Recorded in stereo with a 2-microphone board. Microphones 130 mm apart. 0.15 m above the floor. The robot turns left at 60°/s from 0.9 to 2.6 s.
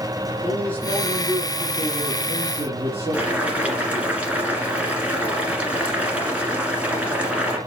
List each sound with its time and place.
0.4 s a man speaking: 15° left, 3 m; by 4.1 s 85° right, 3 m
3.1 s boiling: 10° right (ahead or behind), 2 m